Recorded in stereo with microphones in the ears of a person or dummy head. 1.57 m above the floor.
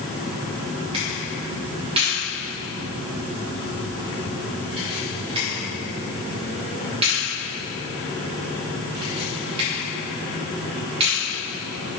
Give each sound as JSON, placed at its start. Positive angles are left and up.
{"t": 0.9, "sound": "a camera shutter", "side_deg": -30, "distance_m": 2.5}